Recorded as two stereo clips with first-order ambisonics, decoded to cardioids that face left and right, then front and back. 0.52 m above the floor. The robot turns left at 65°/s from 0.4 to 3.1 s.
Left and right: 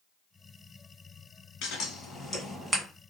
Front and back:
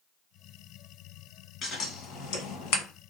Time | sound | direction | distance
1.6 | scissors | 65° left | 0.9 m